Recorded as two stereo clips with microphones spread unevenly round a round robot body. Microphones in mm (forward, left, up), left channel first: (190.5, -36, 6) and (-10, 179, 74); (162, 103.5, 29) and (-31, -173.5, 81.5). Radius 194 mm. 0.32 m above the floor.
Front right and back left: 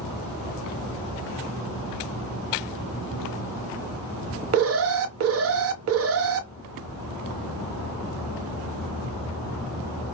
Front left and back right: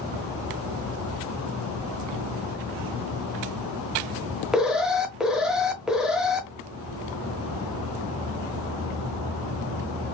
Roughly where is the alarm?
Behind left.